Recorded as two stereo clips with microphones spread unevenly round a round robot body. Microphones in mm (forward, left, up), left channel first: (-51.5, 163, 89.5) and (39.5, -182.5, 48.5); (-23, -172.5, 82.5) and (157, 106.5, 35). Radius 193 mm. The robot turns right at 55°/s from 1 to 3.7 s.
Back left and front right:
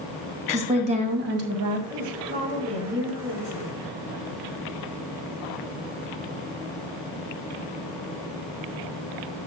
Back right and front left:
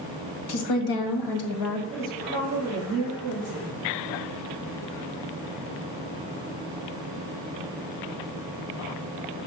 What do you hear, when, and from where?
0.5 s a woman speaking: 145° right, 2.5 m; by 1.8 s 100° right, 2.5 m
1.9 s a woman speaking: 30° right, 6.5 m; by 3.8 s 70° left, 6.5 m